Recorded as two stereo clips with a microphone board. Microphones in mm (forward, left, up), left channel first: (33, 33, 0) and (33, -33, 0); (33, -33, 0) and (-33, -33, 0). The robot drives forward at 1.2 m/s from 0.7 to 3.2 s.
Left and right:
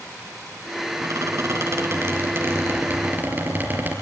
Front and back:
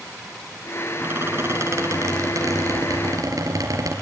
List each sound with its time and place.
1.0 s a squeak: 125° right, 3 m; by 3.9 s 150° right, 5 m